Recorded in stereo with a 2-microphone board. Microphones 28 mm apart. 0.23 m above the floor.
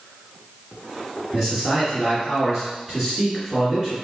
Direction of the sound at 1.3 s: 5° right (ahead or behind).